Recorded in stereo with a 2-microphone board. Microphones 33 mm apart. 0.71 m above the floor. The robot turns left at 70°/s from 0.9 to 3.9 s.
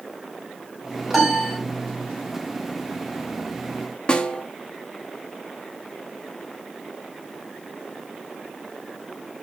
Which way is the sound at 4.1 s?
30° left (ahead or behind).